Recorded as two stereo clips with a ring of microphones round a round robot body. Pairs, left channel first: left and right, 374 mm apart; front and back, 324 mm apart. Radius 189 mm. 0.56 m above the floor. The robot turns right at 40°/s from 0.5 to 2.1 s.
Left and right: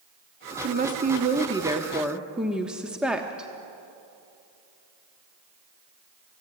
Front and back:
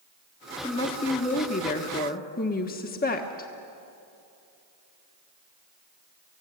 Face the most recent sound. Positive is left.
turn(degrees=-5)